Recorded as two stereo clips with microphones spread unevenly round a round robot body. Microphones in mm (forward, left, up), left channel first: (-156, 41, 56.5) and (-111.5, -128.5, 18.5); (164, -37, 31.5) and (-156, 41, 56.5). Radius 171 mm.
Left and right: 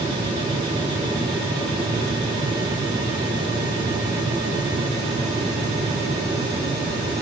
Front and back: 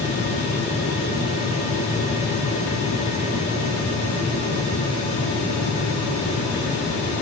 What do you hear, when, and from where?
Only background noise.